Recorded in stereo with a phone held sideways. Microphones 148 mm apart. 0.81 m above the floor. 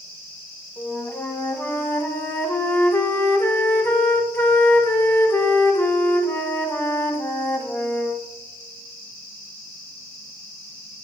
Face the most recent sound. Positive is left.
turn(degrees=15)  # may be behind; listen again after turning